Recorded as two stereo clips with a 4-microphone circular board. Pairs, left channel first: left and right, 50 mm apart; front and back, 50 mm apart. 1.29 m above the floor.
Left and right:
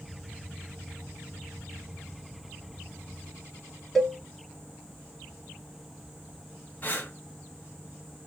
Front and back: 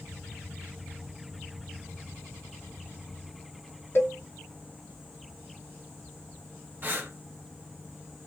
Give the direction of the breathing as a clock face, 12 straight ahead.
7 o'clock.